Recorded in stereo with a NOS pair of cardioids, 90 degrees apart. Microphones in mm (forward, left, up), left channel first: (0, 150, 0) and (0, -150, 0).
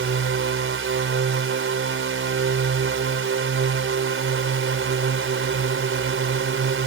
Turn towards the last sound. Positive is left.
turn(degrees=-45)